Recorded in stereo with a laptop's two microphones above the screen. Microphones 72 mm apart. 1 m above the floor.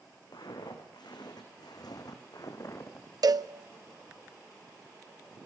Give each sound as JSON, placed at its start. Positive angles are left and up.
{"t": 0.3, "sound": "footsteps", "side_deg": 75, "distance_m": 4.5}
{"t": 3.2, "sound": "a cowbell", "side_deg": -60, "distance_m": 0.6}